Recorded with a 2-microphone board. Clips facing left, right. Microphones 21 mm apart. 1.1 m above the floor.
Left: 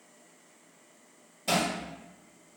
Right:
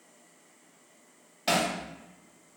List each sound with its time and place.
1.5 s hammering: 60° right (ahead or behind), 1.9 m